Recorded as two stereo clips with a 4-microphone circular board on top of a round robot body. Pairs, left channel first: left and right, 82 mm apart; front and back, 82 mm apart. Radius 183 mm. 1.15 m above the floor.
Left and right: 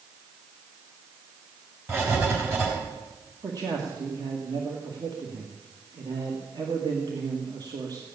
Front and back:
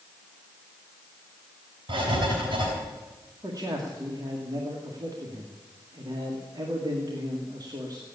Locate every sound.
1.9 s writing: 150° right, 4.5 m
3.4 s a man speaking: 130° right, 1.9 m